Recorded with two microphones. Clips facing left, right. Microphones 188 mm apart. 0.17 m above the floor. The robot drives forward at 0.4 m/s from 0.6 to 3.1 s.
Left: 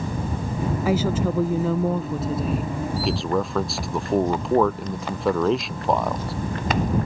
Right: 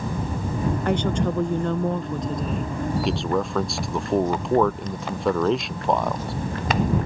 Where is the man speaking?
Centre (ahead or behind).